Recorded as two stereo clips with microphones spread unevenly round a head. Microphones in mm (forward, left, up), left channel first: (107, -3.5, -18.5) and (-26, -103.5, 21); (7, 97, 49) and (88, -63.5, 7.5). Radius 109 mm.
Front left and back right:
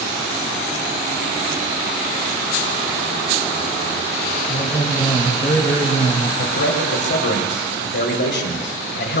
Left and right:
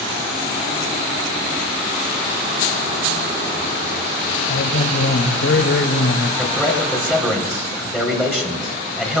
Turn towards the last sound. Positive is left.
turn(degrees=25)